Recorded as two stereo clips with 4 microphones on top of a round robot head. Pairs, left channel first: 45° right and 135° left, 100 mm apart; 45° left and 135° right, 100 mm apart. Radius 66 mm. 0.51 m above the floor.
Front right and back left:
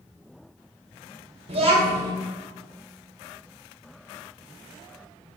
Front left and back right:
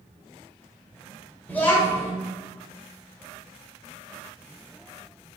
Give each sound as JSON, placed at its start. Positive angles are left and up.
{"t": 1.5, "sound": "a child speaking", "azimuth_deg": 120, "distance_m": 1.3}